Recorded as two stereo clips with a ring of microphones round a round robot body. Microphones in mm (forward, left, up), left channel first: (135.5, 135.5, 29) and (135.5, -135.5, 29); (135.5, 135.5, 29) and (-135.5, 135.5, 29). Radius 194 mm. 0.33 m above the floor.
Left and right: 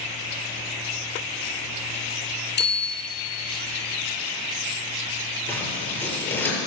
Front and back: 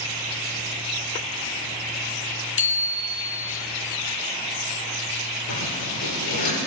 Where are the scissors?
10° left, 7.5 m.